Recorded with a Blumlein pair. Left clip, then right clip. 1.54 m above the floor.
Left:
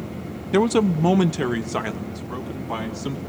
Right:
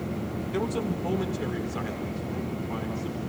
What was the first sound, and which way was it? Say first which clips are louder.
A man speaking: left 11 dB; 30° left.